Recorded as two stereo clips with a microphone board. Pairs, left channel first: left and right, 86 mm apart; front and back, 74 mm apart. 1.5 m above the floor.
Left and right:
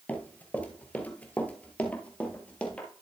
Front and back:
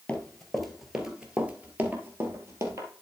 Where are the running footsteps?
50° left, 1.5 m; by 2.9 s 160° left, 2.0 m.